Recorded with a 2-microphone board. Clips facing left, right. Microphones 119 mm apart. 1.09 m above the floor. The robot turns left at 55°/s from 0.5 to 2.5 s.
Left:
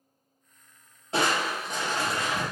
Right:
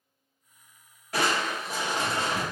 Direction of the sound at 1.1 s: 30° left.